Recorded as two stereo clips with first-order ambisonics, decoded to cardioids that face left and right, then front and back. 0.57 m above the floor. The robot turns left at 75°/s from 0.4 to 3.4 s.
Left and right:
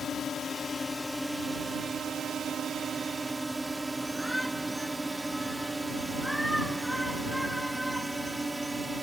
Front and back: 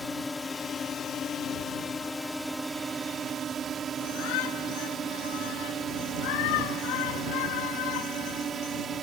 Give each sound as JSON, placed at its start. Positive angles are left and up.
{"t": 0.0, "sound": "a drone", "azimuth_deg": 65}
{"t": 4.0, "sound": "a shout", "azimuth_deg": 0}